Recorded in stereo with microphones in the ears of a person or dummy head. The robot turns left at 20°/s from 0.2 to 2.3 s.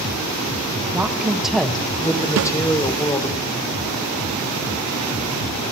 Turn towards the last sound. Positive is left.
turn(degrees=-55)  # may be behind; listen again after turning